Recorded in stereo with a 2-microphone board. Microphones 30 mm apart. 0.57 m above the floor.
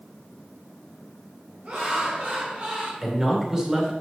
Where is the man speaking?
20° right (ahead or behind), 2 m.